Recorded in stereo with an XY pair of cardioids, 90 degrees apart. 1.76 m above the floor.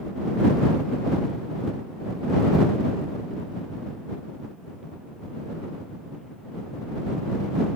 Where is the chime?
No chime in this recording.